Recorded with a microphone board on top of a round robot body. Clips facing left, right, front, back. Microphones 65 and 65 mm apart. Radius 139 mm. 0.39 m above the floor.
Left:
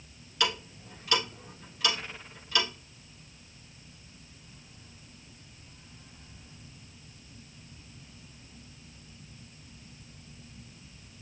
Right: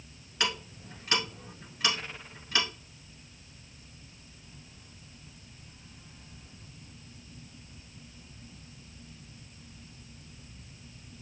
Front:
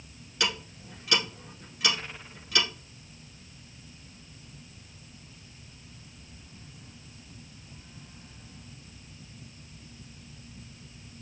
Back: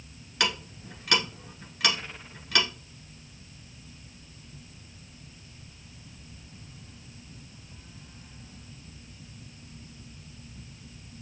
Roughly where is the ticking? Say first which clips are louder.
Left 2 dB, back 2 dB; behind.